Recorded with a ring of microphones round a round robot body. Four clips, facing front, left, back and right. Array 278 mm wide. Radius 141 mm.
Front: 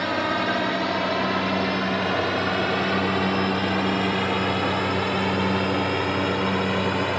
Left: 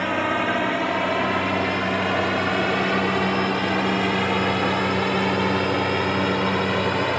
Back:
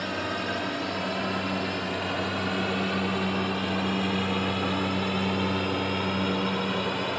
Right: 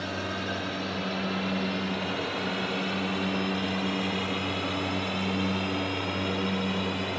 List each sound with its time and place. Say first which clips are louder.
0.0 s a drone: left 10 dB, front 7 dB; 60° left; by 7.2 s 70° left